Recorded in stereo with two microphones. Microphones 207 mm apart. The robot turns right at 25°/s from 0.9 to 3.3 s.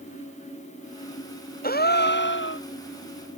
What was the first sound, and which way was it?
A gasp, 45° left (ahead or behind).